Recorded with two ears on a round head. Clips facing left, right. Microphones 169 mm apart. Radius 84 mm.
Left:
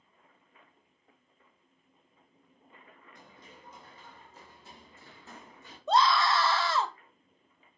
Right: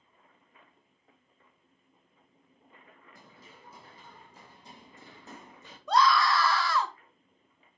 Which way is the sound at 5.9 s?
20° left (ahead or behind).